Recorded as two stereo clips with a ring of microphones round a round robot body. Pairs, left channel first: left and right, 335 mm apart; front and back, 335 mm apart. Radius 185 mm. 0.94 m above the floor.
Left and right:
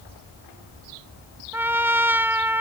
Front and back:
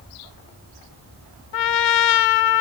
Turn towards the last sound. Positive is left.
turn(degrees=-5)